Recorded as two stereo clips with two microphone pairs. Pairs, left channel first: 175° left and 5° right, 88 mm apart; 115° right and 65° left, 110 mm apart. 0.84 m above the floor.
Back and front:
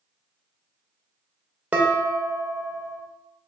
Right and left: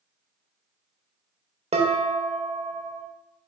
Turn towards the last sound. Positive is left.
turn(degrees=60)